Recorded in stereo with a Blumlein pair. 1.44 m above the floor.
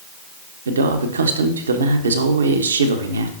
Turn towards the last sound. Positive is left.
turn(degrees=-70)